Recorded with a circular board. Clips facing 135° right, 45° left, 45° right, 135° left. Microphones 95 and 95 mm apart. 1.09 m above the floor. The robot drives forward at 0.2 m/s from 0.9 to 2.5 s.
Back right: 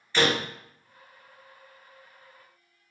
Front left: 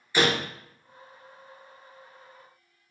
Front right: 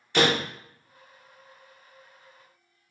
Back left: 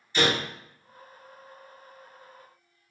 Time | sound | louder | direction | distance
0.1 | a door slam | even, front right 3 dB | 30° right | 0.6 m